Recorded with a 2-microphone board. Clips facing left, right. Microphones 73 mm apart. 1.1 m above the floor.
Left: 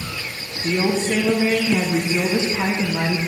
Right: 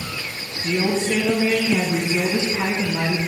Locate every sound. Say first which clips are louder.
0.6 s a woman speaking: left 1 dB; 25° left (ahead or behind), 0.8 m